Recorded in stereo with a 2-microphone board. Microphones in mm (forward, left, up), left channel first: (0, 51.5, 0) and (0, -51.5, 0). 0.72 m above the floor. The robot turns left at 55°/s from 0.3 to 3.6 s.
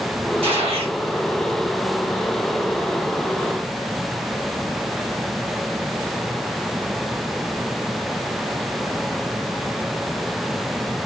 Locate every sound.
0.4 s a gunshot: 70° right (ahead or behind), 1.7 m; by 1.0 s 65° right (ahead or behind), 1.7 m